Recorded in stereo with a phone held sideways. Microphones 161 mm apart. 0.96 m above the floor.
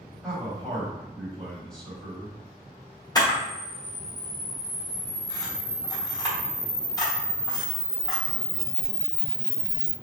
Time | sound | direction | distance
0.2 | a man speaking | 5° right (ahead or behind) | 1.8 m
3.1 | a camera shutter | 25° left (ahead or behind) | 1.1 m